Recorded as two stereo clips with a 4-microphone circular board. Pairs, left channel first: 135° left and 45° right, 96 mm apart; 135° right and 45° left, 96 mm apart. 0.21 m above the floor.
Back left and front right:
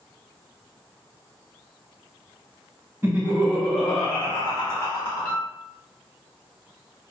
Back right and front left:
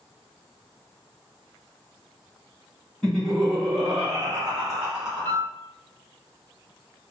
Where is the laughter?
60° right, 1.3 m; by 5.4 s 135° left, 1.7 m.